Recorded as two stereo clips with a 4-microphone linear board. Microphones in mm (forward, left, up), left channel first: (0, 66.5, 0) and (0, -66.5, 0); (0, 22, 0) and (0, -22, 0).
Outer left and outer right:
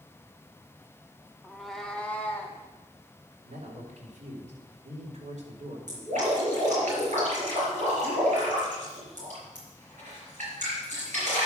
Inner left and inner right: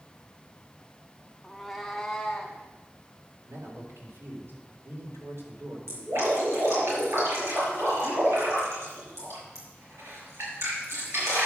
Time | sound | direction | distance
1.4 | a cat meowing | 10° right (ahead or behind) | 0.8 m
3.5 | a man speaking | 70° right (ahead or behind) | 3.5 m
5.9 | dripping | 65° right (ahead or behind) | 5 m